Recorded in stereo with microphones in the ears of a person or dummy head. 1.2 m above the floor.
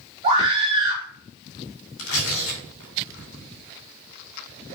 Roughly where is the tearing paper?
Left.